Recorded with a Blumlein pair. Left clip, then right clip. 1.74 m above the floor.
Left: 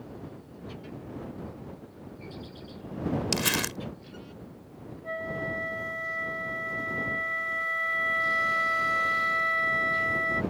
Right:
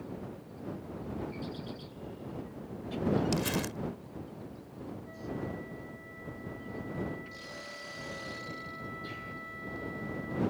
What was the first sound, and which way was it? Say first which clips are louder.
Crumpling: left 6 dB; 60° left.